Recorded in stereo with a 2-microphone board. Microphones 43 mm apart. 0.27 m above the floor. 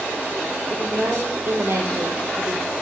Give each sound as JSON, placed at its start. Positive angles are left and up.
{"t": 0.7, "sound": "a woman speaking", "side_deg": -60, "distance_m": 8.5}